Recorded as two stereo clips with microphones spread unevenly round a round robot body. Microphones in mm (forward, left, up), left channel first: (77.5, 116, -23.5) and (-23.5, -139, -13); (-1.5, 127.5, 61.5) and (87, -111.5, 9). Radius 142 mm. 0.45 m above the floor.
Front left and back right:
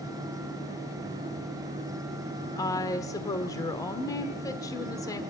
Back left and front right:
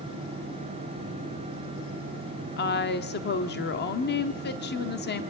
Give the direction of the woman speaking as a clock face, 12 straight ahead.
8 o'clock.